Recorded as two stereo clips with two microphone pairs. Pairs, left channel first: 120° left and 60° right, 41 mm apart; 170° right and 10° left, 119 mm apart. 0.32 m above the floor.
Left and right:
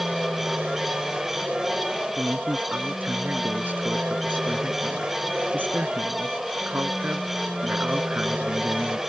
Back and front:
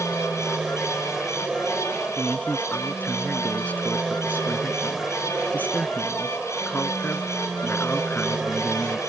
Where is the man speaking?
95° right.